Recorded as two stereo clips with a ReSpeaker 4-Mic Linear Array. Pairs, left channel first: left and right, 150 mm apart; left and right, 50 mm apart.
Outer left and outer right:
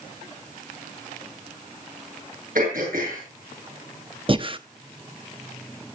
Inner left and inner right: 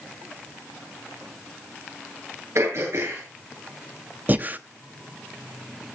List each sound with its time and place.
2.5 s throat clearing: 70° right (ahead or behind), 9 m
4.3 s breathing: 35° right (ahead or behind), 0.8 m